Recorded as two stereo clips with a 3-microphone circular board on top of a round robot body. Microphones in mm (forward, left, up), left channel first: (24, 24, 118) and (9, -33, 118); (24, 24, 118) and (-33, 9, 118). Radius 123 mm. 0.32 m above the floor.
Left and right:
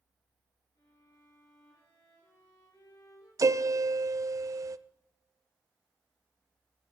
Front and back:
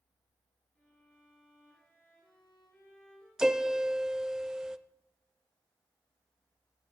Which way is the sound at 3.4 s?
85° right.